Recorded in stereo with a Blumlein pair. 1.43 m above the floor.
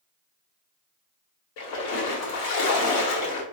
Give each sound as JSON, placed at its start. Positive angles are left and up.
{"t": 1.6, "sound": "a splash", "azimuth_deg": 45, "distance_m": 1.0}